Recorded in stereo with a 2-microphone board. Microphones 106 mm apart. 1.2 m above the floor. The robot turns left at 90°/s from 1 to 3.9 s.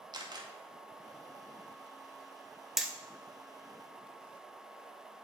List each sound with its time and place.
0.1 s a camera shutter: 45° right (ahead or behind), 0.9 m
2.8 s hammering: centre (ahead or behind), 0.6 m; by 2.9 s 15° right (ahead or behind), 0.6 m